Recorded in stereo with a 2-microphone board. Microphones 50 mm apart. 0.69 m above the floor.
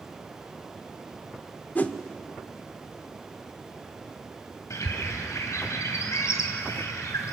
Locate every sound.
1.8 s a whoosh: 35° left (ahead or behind), 0.9 m
4.7 s a bird: 75° left (ahead or behind), 2.5 m